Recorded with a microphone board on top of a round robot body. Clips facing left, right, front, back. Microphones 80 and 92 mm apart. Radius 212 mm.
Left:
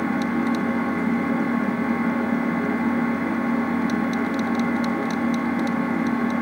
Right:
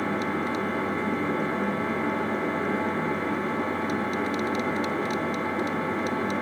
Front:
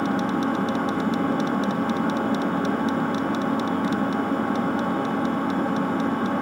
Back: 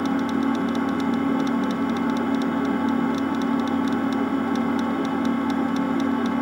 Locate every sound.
0.0 s an engine running: 15° left, 7 m